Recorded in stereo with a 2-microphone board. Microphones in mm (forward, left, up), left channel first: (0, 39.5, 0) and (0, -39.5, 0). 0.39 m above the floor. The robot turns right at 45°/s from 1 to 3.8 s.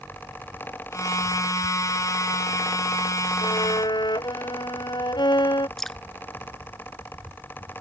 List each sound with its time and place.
3.4 s a violin: 85° left; by 5.7 s 70° left (ahead or behind)
5.8 s dripping: centre (ahead or behind)